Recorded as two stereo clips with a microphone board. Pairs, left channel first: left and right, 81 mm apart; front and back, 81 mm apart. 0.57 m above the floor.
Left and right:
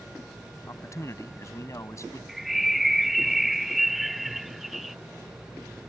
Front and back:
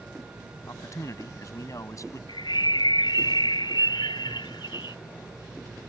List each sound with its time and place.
0.7 s a man speaking: 45° left
2.3 s a bird: 5° right